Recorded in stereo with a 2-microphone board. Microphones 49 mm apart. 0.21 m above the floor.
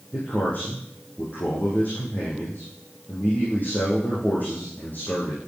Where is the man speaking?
40° left (ahead or behind), 7 m.